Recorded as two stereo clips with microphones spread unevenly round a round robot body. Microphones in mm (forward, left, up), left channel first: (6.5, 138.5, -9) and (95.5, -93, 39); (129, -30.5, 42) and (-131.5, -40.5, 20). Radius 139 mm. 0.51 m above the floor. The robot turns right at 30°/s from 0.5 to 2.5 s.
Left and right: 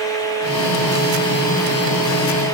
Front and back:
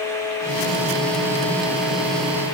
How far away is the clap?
I don't hear a clap.